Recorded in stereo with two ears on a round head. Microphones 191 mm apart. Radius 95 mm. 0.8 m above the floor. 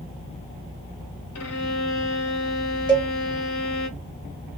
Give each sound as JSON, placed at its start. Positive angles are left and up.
{"t": 1.4, "sound": "a violin", "side_deg": 75, "distance_m": 0.8}
{"t": 2.9, "sound": "a cowbell", "side_deg": -20, "distance_m": 0.9}